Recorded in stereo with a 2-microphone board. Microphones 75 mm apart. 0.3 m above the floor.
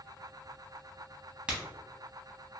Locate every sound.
1.5 s a crack: 15° right (ahead or behind), 1.1 m